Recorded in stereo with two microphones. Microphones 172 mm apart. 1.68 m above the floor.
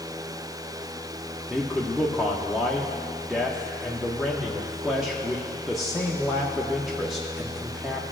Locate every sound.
1.5 s a man speaking: centre (ahead or behind), 0.7 m